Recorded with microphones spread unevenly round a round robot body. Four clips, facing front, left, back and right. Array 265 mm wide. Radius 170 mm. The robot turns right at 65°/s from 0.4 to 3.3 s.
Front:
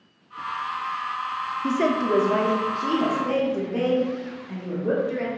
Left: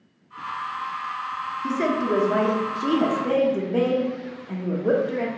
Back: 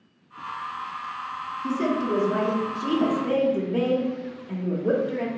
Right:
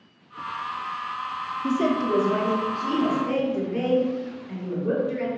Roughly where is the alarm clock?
No alarm clock in this recording.